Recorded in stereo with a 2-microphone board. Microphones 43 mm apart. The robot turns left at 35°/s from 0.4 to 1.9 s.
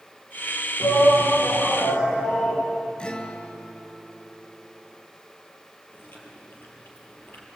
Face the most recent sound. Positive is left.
turn(degrees=55)  # may be behind; listen again after turning